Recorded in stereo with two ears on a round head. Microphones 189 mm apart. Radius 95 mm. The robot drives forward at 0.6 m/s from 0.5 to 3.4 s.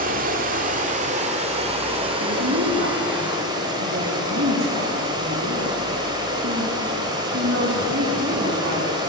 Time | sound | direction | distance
0.0 | running water | 40° right (ahead or behind) | 1.8 m
2.2 | a woman speaking | 65° right (ahead or behind) | 6 m